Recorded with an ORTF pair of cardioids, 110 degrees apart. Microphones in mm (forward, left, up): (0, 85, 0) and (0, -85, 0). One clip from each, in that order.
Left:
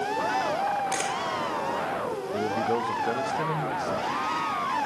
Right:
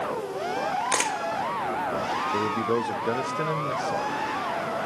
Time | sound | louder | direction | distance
0.9 | a camera shutter | right 3 dB | 35° right | 1.5 m
2.3 | a man speaking | left 2 dB | 15° right | 0.8 m